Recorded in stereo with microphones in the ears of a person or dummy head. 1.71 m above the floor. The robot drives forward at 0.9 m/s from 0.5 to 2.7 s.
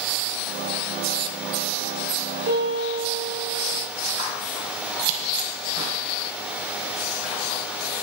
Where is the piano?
50° right (ahead or behind), 5.5 m.